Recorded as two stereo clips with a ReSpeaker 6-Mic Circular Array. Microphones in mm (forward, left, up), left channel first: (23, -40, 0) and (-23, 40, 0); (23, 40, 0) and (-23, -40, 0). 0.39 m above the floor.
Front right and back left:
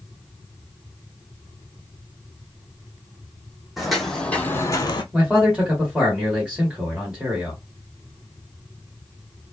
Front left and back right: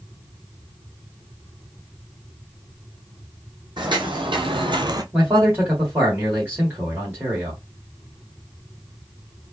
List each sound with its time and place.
3.8 s footsteps: 155° right, 1.3 m; by 5.0 s 80° right, 0.7 m
5.1 s a man speaking: 175° right, 1.7 m